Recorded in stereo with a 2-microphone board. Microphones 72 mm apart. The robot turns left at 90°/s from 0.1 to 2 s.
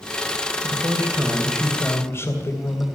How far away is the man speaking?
About 3 m.